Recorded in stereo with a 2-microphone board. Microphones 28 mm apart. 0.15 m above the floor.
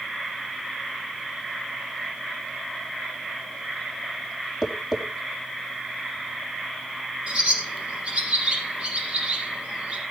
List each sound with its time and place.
4.6 s tapping: 20° right (ahead or behind), 5 m
7.3 s a bird: 40° right (ahead or behind), 6 m